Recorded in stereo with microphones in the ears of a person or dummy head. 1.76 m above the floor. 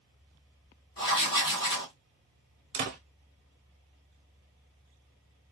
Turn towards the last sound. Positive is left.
turn(degrees=-30)  # may be behind; listen again after turning